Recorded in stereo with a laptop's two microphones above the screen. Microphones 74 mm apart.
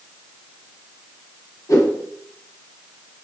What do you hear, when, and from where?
1.7 s a whoosh: 50° left (ahead or behind), 1.2 m